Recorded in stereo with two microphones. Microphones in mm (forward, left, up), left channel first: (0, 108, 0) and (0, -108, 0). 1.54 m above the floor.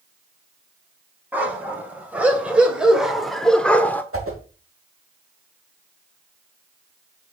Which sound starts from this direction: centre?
A dog barking, at 1.3 s.